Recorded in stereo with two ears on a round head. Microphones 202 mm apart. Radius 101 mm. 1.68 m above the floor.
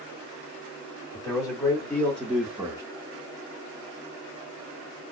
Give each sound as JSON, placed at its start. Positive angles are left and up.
{"t": 1.1, "sound": "a man speaking", "side_deg": 15, "distance_m": 1.4}